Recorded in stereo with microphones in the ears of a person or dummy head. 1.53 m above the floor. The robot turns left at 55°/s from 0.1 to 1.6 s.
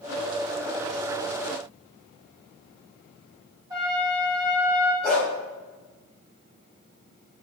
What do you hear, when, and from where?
3.7 s a trumpet: 15° right (ahead or behind), 2.5 m
5.0 s a dog barking: 10° left (ahead or behind), 3.5 m